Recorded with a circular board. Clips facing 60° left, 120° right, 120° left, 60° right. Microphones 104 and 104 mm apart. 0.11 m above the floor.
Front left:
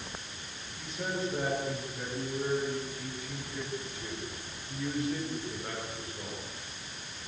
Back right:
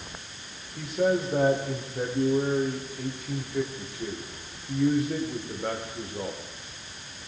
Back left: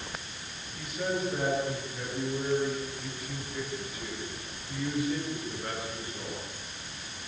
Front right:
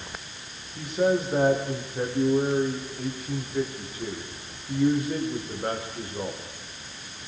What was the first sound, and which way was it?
A man speaking, 105° right.